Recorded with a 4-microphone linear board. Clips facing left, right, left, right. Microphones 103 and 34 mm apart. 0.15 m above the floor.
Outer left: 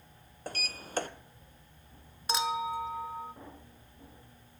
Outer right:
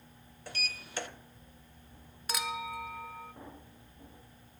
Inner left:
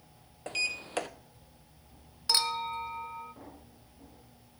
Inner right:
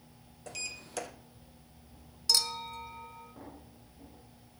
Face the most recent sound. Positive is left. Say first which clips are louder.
# outer left 6 dB, inner left 2 dB
turn(degrees=25)  # may be behind; listen again after turning